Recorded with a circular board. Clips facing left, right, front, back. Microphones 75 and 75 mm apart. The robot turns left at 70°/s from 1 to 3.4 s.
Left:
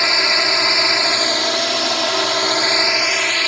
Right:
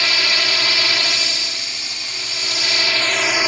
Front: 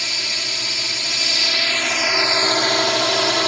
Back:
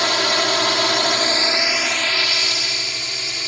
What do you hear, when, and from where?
0.0 s a drone: 155° left; by 3.5 s 15° right